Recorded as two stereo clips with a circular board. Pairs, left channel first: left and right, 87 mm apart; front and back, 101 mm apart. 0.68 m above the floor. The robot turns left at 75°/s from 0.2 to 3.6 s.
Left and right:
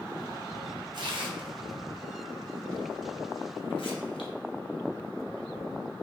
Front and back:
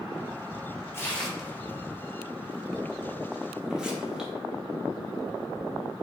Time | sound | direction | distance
0.9 | tearing paper | 60° right | 0.7 m